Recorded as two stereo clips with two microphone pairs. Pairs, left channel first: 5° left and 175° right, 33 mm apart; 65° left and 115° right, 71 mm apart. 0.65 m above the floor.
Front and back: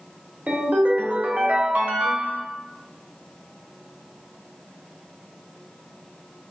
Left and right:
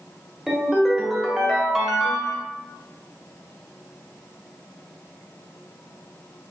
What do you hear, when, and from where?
0.5 s a ringtone: 165° left, 0.8 m